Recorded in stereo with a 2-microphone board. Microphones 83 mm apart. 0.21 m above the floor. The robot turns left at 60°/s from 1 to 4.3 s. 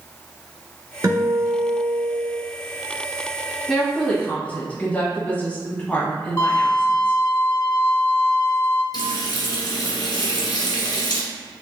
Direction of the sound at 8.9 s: 55° left (ahead or behind).